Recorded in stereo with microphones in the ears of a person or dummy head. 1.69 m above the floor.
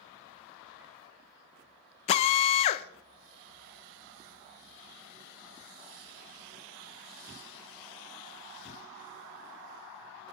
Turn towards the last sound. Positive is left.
turn(degrees=40)  # may be behind; listen again after turning